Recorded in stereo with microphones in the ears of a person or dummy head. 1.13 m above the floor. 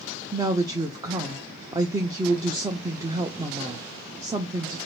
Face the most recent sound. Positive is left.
turn(degrees=-15)  # may be behind; listen again after turning